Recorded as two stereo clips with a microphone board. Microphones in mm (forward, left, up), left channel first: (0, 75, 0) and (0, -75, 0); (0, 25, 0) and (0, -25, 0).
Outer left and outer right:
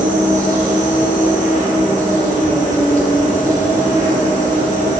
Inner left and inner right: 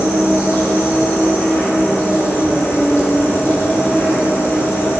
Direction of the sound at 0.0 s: 65° left (ahead or behind).